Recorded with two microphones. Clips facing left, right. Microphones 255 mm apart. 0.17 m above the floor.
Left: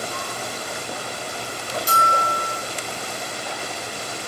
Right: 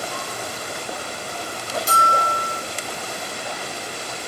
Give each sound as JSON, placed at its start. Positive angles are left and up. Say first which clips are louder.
{"t": 1.9, "sound": "a bell", "louder": "even", "side_deg": 55, "distance_m": 2.0}